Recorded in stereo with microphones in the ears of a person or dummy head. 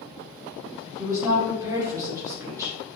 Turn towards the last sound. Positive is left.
turn(degrees=-20)  # may be behind; listen again after turning